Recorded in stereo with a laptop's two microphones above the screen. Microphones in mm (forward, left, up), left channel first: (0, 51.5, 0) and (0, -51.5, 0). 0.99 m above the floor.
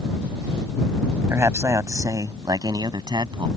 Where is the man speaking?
25° right (ahead or behind); by 3.5 s 45° right (ahead or behind).